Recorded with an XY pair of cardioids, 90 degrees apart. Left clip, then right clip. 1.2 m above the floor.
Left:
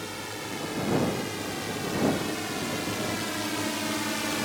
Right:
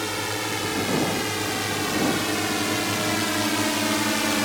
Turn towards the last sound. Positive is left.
turn(degrees=-50)